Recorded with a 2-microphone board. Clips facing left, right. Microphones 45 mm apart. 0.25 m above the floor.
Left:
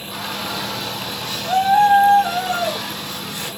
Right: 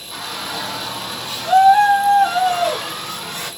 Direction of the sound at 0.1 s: Centre (ahead or behind).